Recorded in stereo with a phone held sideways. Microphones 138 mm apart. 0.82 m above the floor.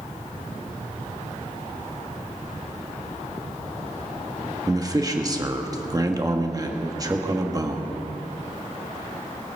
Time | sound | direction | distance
4.7 | a man speaking | 25° right (ahead or behind) | 1.3 m